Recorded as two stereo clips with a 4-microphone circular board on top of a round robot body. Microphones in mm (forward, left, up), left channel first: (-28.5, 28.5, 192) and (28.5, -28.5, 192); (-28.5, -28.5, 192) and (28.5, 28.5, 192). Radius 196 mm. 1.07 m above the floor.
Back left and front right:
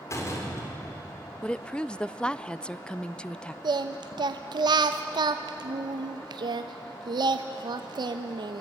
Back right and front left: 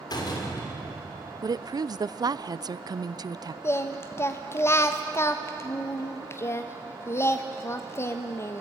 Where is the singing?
75° right, 0.6 m.